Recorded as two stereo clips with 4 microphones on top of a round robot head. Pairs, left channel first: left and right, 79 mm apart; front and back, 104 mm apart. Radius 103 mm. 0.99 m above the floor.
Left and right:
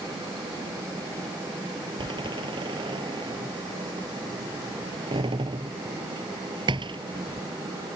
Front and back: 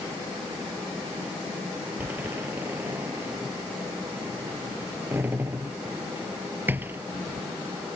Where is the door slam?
105° right.